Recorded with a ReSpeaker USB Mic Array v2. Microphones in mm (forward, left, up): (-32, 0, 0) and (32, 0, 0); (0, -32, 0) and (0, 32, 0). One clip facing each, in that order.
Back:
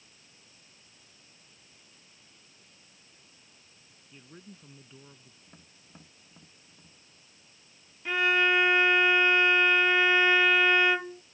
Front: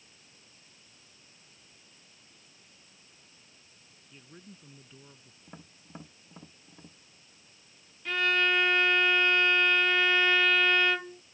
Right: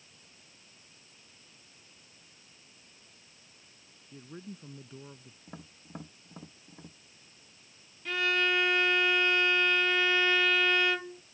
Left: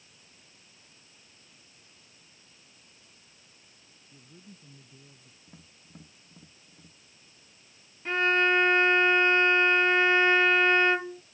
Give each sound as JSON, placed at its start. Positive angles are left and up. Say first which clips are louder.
{"t": 4.1, "sound": "a man speaking", "louder": "back 1 dB, right 8 dB", "azimuth_deg": -95}
{"t": 5.5, "sound": "tapping", "louder": "front 9 dB, right 8 dB", "azimuth_deg": -55}
{"t": 8.1, "sound": "a violin", "louder": "back 2 dB, left 5 dB", "azimuth_deg": 120}